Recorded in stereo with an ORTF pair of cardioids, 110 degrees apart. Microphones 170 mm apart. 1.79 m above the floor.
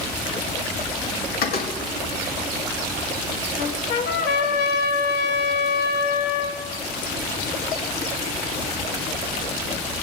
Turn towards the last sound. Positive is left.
turn(degrees=70)